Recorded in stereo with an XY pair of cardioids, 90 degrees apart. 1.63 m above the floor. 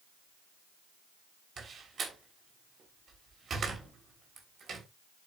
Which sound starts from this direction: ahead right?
A door slam, at 1.6 s.